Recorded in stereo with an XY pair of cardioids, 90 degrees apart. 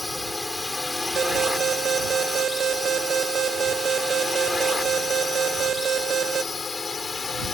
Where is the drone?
15° left; by 7.5 s 40° left.